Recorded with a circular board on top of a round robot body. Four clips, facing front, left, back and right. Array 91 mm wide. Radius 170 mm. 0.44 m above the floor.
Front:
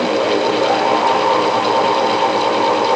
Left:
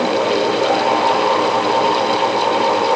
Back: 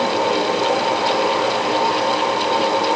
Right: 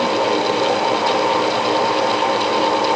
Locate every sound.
Only background noise.